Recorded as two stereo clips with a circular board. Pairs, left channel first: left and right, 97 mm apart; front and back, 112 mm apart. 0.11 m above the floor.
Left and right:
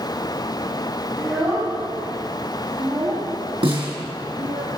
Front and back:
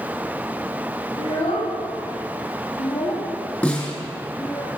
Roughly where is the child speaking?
Ahead.